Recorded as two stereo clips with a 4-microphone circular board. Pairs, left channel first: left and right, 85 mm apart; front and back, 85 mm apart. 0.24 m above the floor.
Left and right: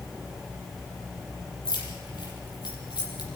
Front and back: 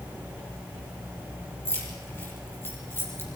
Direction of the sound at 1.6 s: 65° left.